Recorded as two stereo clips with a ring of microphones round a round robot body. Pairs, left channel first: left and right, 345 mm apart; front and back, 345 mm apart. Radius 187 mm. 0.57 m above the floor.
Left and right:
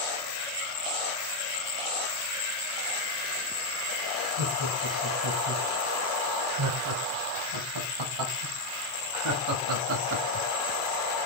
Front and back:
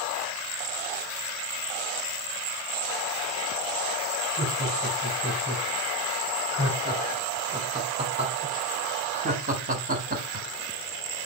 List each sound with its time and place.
4.4 s laughter: 100° right, 4 m; by 10.5 s 135° right, 1.3 m